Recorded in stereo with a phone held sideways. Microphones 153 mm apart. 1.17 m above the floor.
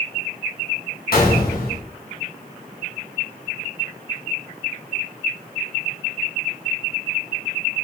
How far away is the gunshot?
About 1.1 m.